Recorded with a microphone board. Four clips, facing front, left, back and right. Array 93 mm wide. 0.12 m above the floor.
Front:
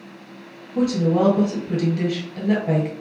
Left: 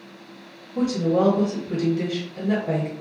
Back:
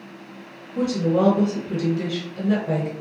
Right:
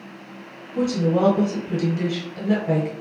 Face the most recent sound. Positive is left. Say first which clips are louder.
# even, front 2 dB
turn(degrees=-10)